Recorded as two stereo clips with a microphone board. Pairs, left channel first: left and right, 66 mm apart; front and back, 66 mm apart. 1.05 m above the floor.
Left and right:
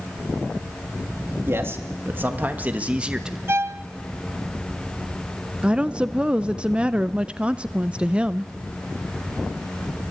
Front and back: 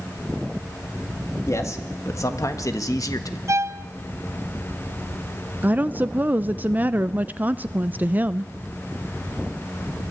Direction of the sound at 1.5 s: 40° right.